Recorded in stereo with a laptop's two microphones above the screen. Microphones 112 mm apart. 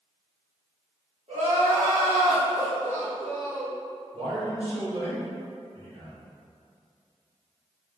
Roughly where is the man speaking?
Right.